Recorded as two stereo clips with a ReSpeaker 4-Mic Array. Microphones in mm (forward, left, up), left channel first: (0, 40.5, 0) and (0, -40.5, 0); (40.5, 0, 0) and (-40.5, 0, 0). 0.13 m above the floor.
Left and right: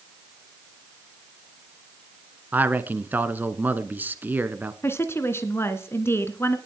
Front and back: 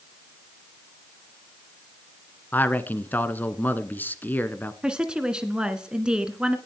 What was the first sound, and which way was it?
A man speaking, 45° right.